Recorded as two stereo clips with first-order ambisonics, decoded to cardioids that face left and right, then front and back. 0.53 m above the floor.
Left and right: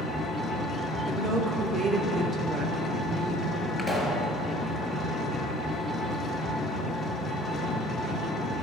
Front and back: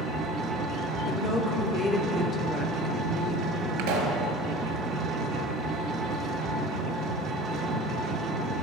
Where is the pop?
175° right, 1.8 m.